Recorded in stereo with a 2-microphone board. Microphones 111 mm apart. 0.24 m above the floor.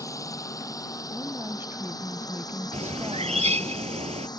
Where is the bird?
80° right.